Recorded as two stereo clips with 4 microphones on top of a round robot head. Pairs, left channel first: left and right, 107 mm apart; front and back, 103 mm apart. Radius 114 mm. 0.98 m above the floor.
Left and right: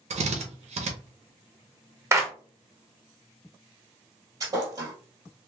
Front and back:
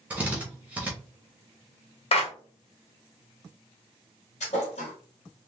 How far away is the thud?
About 1.9 m.